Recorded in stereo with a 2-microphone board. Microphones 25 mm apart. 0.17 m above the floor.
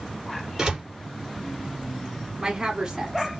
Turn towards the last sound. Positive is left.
turn(degrees=-25)  # may be behind; listen again after turning